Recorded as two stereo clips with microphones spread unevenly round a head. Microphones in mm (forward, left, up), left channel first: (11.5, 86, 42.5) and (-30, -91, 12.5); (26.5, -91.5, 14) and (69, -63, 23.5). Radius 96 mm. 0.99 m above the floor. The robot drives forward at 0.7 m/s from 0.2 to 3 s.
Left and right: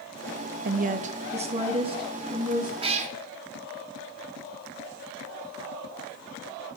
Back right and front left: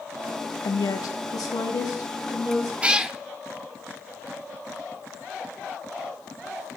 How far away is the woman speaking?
About 0.6 m.